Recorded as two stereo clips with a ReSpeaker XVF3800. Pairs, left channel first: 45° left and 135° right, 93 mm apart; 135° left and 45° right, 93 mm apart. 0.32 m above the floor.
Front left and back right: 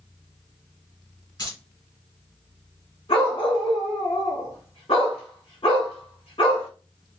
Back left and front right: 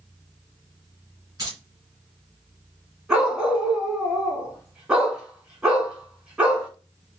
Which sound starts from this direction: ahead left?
A dog barking, at 3.1 s.